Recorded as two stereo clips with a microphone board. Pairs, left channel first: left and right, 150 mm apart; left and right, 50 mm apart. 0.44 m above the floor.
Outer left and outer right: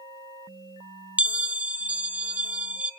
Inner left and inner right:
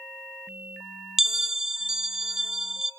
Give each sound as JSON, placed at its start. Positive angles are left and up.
{"t": 1.2, "sound": "a bell", "side_deg": -10, "distance_m": 0.5}